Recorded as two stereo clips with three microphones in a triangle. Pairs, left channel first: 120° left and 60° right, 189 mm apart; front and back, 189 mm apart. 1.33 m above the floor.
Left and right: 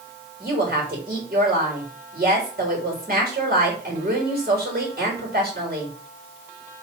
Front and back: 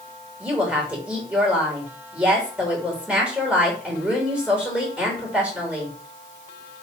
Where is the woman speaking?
95° right, 3.5 m.